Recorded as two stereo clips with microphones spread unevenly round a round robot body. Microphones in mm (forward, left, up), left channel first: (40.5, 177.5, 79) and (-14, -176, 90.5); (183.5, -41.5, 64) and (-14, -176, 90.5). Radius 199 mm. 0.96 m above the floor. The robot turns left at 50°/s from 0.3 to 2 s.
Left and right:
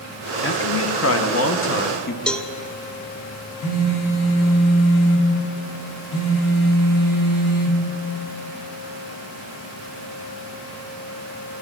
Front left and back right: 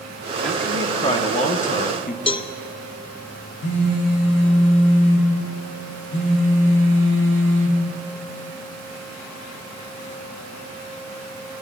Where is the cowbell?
Straight ahead, 0.6 m.